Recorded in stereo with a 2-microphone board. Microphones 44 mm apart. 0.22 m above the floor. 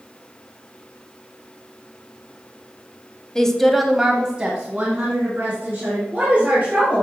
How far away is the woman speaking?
About 0.9 m.